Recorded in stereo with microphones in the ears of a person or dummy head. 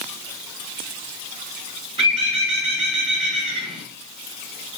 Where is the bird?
35° right (ahead or behind), 2 m.